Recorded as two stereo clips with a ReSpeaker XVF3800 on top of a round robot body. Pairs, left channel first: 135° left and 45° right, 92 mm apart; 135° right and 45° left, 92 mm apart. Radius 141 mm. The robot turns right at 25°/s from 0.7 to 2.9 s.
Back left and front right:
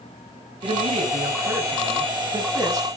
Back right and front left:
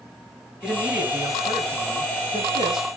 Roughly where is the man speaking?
Ahead right.